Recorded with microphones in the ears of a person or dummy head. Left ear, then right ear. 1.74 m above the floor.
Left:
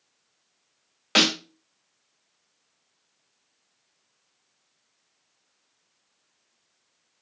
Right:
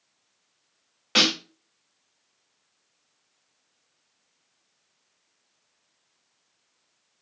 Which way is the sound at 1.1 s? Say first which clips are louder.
Even; 20° left (ahead or behind).